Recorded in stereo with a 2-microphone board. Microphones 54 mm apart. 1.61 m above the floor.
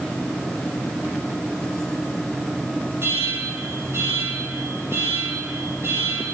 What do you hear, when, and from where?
3.0 s an alarm: 55° right (ahead or behind), 8.5 m